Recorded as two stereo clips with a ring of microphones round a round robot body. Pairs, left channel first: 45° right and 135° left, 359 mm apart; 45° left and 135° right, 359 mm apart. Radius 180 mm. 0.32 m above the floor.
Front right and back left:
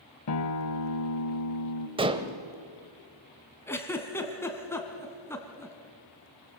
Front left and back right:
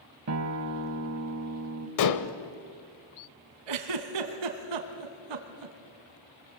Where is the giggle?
130° right, 1.9 m.